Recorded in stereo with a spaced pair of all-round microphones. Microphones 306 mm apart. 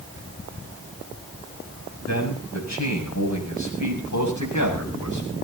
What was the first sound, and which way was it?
A man speaking, 60° left (ahead or behind).